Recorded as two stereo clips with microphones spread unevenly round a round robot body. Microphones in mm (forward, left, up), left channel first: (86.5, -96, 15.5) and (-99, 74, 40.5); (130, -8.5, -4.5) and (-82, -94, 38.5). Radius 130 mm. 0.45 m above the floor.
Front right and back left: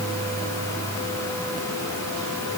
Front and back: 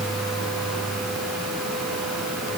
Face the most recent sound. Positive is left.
No sound to turn to.